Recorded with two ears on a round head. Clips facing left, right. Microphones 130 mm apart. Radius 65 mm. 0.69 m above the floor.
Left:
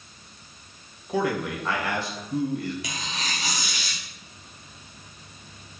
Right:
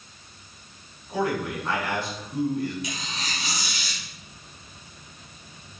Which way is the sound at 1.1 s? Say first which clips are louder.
Left 1 dB; 60° left (ahead or behind).